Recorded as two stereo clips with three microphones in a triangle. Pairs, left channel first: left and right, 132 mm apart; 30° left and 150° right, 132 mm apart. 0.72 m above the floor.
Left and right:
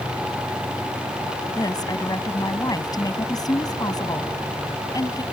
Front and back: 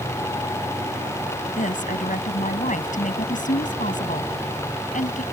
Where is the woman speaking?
30° left.